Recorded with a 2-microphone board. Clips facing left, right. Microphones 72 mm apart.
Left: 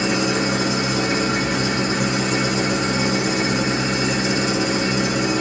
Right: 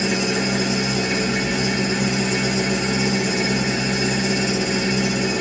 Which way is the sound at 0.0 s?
55° left (ahead or behind).